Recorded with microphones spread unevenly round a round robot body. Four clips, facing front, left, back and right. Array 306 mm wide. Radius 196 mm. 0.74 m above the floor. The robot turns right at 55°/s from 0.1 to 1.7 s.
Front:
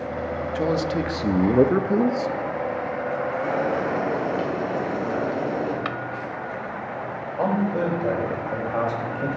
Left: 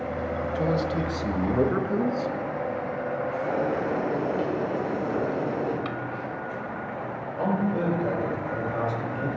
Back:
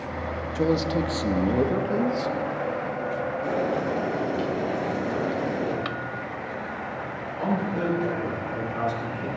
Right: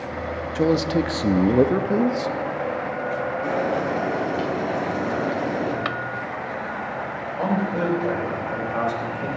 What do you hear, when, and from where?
0.6 s a man speaking: 105° right, 0.9 m; by 2.4 s 40° right, 0.9 m
3.4 s boiling: 65° right, 6.5 m
5.8 s a drawer: 70° right, 0.8 m
7.4 s a man speaking: 25° right, 4.5 m